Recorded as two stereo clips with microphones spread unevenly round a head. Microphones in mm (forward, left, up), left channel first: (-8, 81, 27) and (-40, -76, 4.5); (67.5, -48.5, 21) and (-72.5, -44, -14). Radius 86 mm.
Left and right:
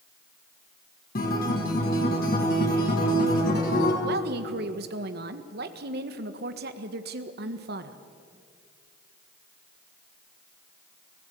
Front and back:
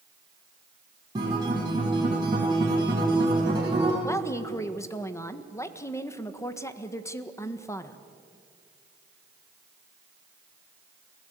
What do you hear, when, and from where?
1.1 s a guitar: 110° left, 4.5 m
4.0 s a woman speaking: 75° right, 1.5 m